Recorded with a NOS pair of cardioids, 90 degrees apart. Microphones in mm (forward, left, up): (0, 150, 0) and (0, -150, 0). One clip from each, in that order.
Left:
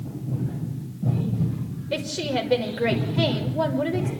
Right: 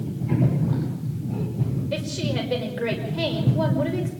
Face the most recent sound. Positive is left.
turn(degrees=25)